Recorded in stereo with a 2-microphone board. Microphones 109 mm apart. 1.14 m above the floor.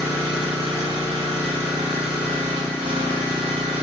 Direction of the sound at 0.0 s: 45° right (ahead or behind).